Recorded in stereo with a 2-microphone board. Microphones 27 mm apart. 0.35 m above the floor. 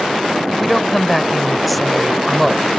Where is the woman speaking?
Centre (ahead or behind).